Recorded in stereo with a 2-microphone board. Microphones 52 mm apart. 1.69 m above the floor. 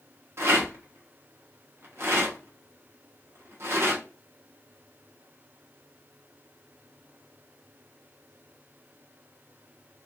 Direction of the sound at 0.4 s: 55° right (ahead or behind).